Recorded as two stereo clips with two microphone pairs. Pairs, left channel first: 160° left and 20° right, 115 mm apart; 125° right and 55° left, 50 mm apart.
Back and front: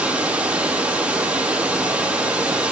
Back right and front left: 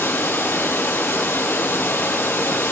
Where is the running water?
100° right, 5.5 m.